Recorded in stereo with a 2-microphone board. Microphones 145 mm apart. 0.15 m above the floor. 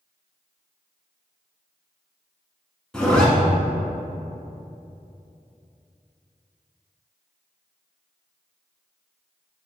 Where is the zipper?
5° left (ahead or behind), 1.0 m.